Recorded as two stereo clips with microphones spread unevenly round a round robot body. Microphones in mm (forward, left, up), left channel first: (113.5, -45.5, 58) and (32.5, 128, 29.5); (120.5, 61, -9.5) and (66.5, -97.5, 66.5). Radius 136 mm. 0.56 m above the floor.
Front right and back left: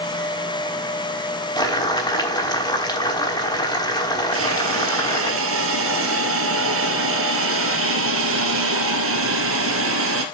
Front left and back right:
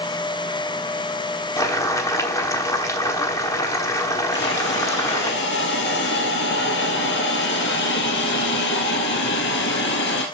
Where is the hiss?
115° left, 2 m.